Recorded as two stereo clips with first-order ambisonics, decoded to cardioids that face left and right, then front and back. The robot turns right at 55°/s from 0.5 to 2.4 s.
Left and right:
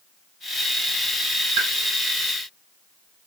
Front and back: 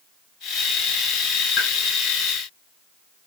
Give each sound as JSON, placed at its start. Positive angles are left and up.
{"t": 1.6, "sound": "a pop", "azimuth_deg": -70, "distance_m": 1.9}